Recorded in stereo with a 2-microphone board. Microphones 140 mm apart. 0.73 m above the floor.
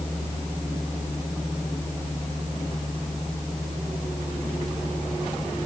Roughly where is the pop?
I don't hear a pop.